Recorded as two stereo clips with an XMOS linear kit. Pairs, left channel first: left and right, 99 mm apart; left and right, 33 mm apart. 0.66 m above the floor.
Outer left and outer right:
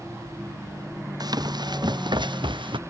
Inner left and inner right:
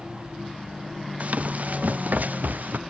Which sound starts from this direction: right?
Running footsteps, at 1.2 s.